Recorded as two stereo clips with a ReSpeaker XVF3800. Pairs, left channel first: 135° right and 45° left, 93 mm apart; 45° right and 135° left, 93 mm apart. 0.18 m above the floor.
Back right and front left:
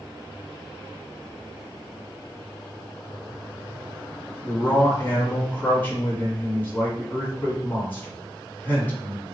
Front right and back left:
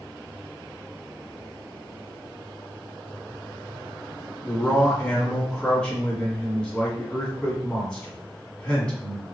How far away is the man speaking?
About 1.3 m.